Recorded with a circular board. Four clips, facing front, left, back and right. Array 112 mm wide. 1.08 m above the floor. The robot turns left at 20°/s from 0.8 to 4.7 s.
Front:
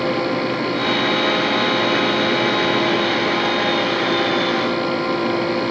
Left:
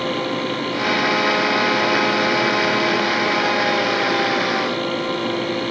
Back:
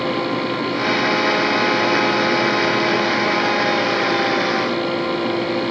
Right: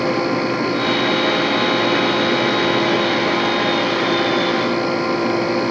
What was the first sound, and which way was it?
Only background noise.